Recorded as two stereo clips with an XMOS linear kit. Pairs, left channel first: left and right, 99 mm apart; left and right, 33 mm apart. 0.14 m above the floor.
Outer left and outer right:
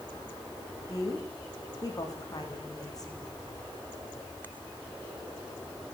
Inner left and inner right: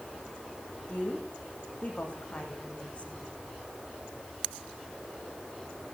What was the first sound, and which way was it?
A woman speaking, 40° left (ahead or behind).